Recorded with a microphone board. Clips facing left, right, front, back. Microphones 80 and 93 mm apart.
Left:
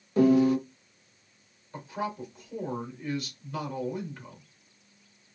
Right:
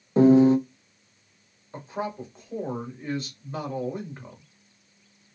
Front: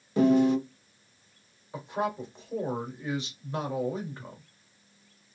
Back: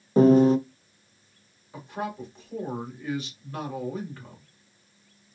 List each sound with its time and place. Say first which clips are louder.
0.2 s a piano: right 5 dB, back 5 dB; 140° right, 0.6 m
1.7 s a man speaking: right 2 dB, front 3 dB; 50° right, 1.6 m